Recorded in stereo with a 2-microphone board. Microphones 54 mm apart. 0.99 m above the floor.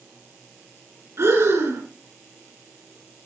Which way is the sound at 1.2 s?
60° right (ahead or behind).